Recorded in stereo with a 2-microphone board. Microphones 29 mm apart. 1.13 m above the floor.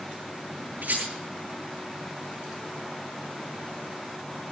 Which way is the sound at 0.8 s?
80° right.